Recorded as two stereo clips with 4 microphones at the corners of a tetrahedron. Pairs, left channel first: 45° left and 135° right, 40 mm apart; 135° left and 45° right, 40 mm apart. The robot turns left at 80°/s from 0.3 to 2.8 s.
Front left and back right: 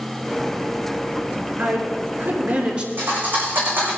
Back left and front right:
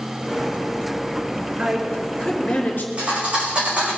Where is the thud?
105° right, 6 m.